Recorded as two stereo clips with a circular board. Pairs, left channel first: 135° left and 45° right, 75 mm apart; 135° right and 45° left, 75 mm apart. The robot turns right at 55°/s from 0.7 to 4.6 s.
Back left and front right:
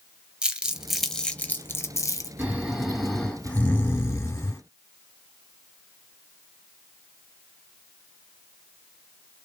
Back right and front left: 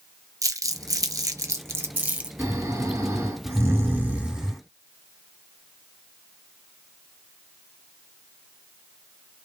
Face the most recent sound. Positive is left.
turn(degrees=130)